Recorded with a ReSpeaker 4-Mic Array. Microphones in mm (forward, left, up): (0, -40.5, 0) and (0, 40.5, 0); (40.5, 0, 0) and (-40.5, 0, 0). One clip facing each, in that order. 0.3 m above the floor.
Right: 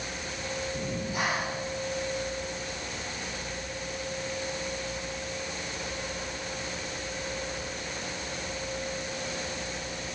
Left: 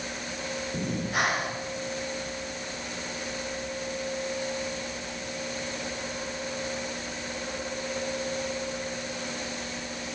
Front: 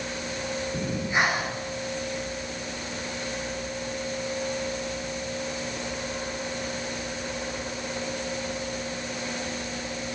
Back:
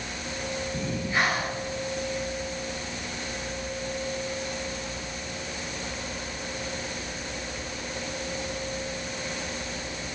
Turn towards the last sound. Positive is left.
turn(degrees=70)